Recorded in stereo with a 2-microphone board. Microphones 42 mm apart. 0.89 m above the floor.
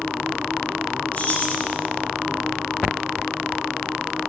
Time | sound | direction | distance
1.1 | keys jangling | 40° left (ahead or behind) | 4 m